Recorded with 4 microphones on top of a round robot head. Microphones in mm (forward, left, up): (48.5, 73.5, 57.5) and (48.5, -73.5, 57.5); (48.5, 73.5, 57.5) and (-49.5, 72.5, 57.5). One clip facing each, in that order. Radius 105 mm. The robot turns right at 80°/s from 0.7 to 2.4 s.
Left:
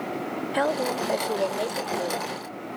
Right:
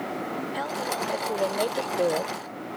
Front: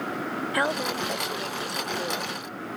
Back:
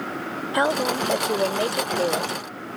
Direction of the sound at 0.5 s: 120° left.